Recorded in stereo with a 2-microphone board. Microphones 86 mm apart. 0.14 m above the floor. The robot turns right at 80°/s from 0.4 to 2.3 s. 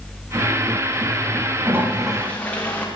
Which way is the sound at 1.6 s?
35° right.